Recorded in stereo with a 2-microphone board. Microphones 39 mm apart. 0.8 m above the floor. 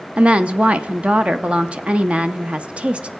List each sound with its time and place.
0.2 s a woman speaking: 30° right (ahead or behind), 0.6 m